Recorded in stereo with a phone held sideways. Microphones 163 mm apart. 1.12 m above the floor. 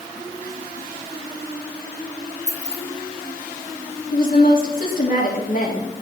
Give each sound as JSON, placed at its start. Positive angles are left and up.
{"t": 2.5, "sound": "keys jangling", "side_deg": 45, "distance_m": 1.1}
{"t": 4.1, "sound": "a woman speaking", "side_deg": 60, "distance_m": 2.5}